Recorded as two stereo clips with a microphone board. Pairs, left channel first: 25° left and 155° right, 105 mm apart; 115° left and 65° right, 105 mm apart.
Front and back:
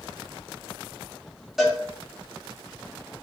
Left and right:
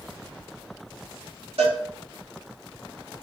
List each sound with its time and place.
1.6 s a cowbell: 70° right, 3.5 m